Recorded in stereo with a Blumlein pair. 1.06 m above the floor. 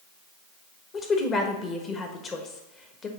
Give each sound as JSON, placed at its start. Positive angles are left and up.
{"t": 0.9, "sound": "a woman speaking", "azimuth_deg": 20, "distance_m": 1.2}